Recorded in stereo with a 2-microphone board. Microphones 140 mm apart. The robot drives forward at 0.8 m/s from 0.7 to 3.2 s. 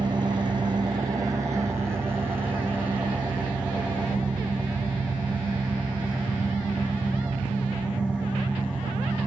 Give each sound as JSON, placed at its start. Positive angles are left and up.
{"t": 0.0, "sound": "an engine running", "side_deg": -35, "distance_m": 1.1}